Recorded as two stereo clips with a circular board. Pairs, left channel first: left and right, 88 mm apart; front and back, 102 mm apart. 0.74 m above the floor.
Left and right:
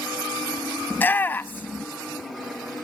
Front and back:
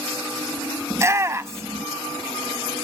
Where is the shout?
140° left, 0.8 m.